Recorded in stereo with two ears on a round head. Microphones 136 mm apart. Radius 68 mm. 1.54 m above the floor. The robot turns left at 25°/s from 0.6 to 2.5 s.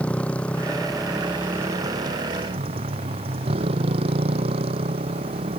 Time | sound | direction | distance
0.0 | a motorcycle | 10° left | ?